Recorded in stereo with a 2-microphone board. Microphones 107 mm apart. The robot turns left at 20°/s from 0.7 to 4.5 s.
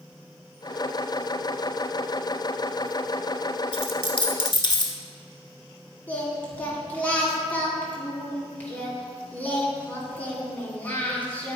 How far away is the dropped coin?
About 1.1 m.